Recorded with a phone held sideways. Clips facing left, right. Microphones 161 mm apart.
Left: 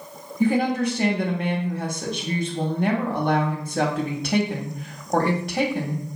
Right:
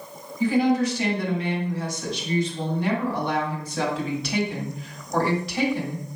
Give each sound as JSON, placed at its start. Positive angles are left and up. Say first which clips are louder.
{"t": 0.4, "sound": "a woman speaking", "louder": "even", "side_deg": 55, "distance_m": 1.4}